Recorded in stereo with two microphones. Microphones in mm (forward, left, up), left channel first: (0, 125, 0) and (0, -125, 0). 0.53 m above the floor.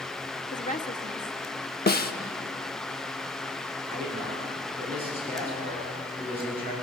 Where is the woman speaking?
30° left (ahead or behind), 1.4 m.